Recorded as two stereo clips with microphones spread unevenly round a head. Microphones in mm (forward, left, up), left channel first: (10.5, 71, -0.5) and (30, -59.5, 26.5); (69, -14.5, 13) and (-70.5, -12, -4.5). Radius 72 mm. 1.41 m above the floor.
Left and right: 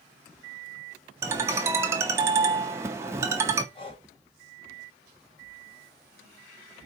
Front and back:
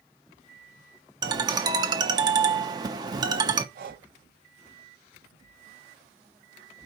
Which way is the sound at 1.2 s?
125° right.